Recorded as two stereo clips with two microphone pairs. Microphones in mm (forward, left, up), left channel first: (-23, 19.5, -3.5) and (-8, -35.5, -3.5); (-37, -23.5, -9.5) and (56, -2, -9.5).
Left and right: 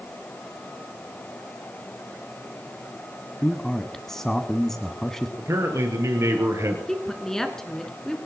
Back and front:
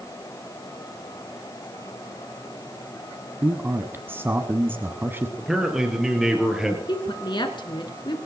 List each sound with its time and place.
3.4 s a man speaking: 30° left, 1.2 m
5.4 s a man speaking: 70° right, 4 m
6.9 s a woman speaking: 175° right, 2.5 m